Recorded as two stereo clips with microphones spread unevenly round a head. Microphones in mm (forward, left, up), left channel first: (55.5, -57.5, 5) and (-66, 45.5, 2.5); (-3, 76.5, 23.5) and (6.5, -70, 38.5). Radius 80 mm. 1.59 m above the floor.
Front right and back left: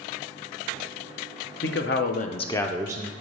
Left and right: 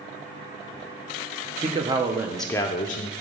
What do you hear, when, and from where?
1.6 s a man speaking: 35° right, 1.0 m; by 3.1 s 95° left, 0.6 m